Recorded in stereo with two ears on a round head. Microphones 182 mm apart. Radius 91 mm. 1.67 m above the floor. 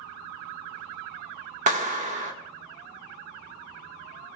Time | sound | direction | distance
1.7 | a clap | 35° right (ahead or behind) | 1.3 m